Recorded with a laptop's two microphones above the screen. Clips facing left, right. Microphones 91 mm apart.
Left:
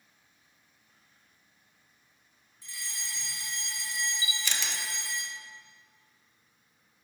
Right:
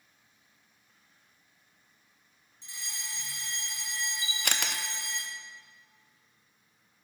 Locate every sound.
2.6 s a fire alarm: 25° right (ahead or behind), 1.9 m
4.2 s a camera shutter: 60° right (ahead or behind), 0.5 m